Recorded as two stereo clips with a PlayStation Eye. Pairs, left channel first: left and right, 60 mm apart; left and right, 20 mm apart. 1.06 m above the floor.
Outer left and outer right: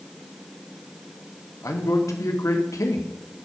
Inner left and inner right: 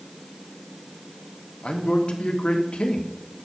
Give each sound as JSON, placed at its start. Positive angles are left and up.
{"t": 1.6, "sound": "a man speaking", "side_deg": 65, "distance_m": 1.7}